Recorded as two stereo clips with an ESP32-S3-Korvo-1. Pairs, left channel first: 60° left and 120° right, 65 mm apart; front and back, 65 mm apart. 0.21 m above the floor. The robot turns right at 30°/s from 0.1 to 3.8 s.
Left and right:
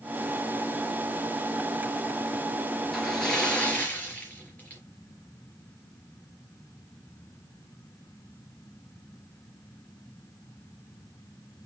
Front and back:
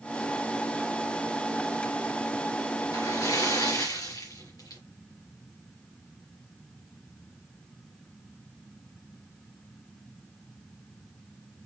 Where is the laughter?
I don't hear laughter.